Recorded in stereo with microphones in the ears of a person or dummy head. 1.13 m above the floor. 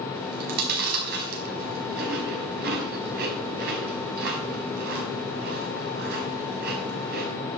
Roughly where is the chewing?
Right.